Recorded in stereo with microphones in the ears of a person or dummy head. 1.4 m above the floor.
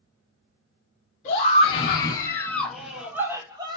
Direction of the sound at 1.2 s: 45° left (ahead or behind).